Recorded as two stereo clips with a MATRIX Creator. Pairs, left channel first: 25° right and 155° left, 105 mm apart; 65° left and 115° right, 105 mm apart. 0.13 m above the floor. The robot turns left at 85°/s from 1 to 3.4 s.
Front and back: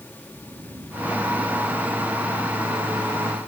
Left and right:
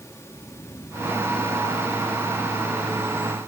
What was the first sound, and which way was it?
Snoring, 120° left.